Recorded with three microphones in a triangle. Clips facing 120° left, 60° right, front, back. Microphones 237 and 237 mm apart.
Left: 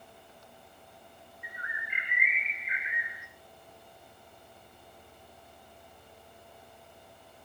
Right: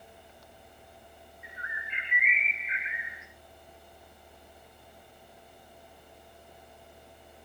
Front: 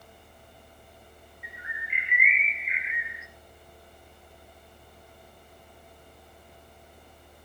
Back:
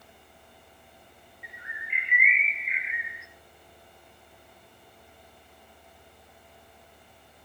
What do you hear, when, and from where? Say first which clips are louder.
1.4 s a bird: left 1 dB, front 2 dB; 85° right, 0.8 m